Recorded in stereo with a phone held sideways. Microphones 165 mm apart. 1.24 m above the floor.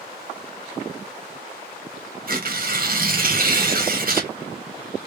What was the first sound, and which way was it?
Tearing paper, 60° right (ahead or behind).